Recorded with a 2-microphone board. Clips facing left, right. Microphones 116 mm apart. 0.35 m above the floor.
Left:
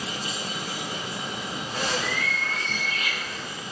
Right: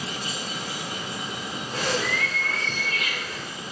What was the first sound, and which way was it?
A bird, 55° right (ahead or behind).